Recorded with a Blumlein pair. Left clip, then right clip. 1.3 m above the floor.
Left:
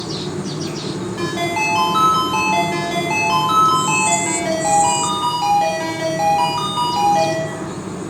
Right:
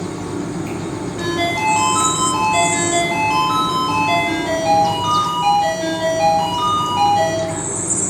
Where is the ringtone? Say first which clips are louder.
Right 1 dB; 50° left, 1.0 m.